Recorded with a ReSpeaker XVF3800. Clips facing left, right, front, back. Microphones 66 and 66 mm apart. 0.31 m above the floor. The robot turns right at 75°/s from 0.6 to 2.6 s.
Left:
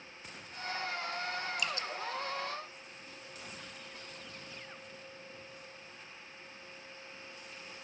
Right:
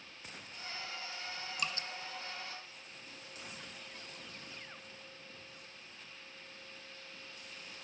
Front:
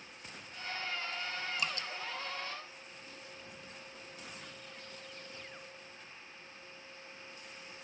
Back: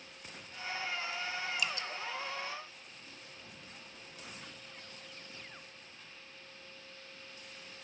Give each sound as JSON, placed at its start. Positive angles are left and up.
{"t": 1.6, "sound": "dripping", "azimuth_deg": -50, "distance_m": 0.9}